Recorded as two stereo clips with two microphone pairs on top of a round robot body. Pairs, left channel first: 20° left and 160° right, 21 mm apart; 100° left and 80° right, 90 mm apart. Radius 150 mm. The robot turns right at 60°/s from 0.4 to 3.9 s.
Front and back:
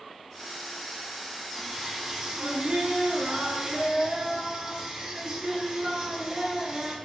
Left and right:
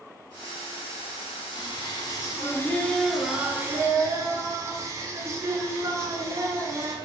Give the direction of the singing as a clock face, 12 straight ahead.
9 o'clock.